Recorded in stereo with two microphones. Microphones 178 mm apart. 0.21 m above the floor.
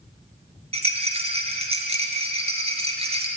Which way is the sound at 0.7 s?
35° right (ahead or behind).